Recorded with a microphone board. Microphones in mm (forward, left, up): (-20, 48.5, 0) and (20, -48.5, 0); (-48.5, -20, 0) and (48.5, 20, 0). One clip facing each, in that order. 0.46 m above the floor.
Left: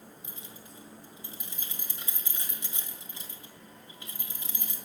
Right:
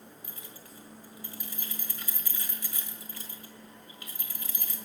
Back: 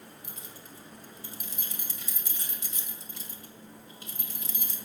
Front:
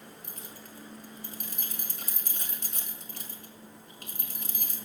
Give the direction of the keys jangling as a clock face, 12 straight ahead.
10 o'clock.